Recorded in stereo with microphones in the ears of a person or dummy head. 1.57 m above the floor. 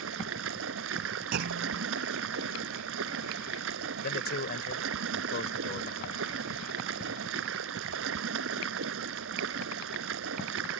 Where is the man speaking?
50° left (ahead or behind).